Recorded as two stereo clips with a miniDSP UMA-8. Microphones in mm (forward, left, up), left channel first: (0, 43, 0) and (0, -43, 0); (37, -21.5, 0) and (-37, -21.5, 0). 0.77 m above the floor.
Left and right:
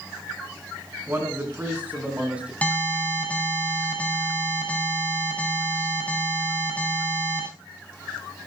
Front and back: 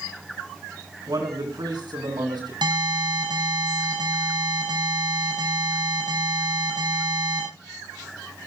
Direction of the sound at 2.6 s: 165° left.